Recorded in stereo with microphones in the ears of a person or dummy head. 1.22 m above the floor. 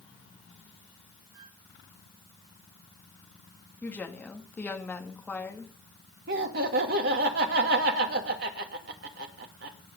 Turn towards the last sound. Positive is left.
turn(degrees=-60)  # may be behind; listen again after turning